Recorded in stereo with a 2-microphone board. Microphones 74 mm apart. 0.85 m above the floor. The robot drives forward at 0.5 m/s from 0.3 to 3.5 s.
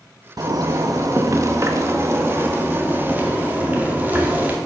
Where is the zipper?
55° right (ahead or behind), 0.9 m; by 4.6 s 25° right (ahead or behind), 1.7 m.